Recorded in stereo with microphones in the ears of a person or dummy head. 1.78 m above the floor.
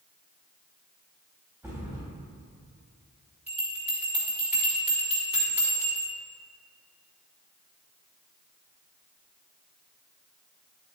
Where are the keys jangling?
No keys jangling in this recording.